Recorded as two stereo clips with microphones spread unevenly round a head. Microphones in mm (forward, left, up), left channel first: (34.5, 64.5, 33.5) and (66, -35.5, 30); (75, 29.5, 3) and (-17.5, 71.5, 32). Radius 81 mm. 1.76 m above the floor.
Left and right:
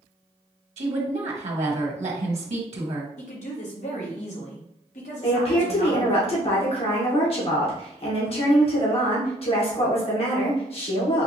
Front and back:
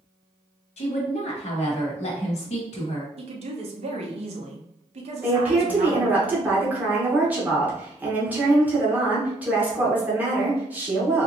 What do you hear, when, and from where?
0.8 s a woman speaking: 60° right, 1.3 m
3.2 s a woman speaking: 135° left, 1.2 m
5.2 s a woman speaking: 85° left, 1.9 m